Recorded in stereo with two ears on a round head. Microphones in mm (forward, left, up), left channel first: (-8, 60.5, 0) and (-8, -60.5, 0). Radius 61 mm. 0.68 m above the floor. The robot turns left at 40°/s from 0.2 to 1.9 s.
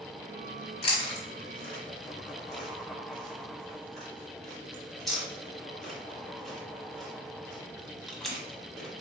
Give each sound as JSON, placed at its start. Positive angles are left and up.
{"t": 0.8, "sound": "chewing", "side_deg": 40, "distance_m": 0.9}